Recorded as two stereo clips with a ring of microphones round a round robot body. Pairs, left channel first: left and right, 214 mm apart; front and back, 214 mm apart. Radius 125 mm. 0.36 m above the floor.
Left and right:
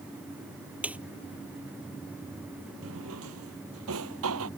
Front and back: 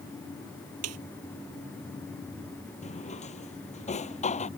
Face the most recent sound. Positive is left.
turn(degrees=-60)